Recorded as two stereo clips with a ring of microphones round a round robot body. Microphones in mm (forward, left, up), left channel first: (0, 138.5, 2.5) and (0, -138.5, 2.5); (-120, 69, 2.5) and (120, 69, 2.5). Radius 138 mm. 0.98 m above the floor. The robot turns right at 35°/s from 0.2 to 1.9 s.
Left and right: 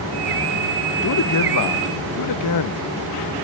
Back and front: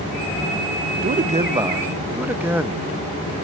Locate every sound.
1.0 s a man speaking: 50° left, 0.8 m; by 2.8 s 80° left, 0.8 m